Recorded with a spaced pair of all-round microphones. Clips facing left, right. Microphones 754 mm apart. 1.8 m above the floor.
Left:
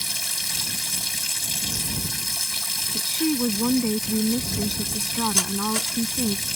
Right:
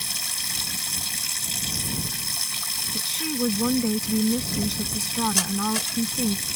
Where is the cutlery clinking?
5° left (ahead or behind).